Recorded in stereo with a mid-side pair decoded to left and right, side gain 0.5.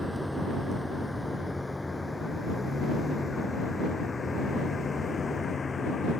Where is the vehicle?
Straight ahead; by 6.2 s 35° left.